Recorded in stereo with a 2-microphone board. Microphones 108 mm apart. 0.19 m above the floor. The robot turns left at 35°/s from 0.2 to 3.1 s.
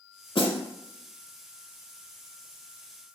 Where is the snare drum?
55° left (ahead or behind), 0.5 m; by 0.6 s 60° left (ahead or behind), 0.5 m.